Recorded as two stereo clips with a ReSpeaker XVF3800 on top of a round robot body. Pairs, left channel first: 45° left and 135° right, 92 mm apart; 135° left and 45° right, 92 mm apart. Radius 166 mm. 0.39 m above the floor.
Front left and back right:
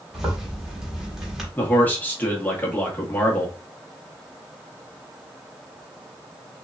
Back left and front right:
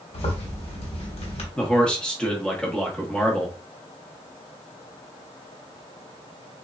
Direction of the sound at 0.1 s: 140° left.